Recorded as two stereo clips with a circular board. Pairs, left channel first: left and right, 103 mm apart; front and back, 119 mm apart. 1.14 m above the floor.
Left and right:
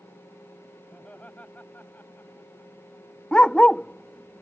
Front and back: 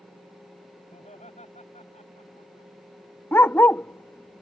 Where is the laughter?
10° left; by 2.7 s 20° left.